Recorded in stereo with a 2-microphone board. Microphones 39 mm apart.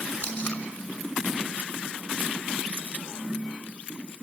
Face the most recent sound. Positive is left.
turn(degrees=60)  # may be behind; listen again after turning